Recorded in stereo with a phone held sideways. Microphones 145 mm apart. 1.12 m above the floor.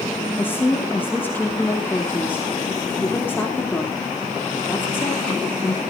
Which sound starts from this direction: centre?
A woman speaking, at 0.4 s.